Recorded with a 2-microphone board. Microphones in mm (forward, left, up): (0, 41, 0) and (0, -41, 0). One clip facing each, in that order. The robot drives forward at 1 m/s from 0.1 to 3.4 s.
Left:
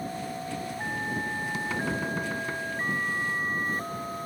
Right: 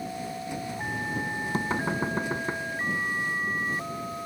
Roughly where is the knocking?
Right.